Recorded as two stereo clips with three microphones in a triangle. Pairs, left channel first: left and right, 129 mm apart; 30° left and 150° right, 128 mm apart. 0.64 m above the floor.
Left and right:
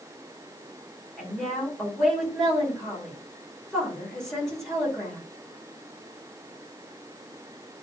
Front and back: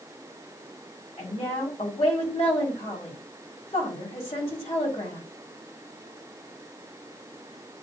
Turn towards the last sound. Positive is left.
turn(degrees=5)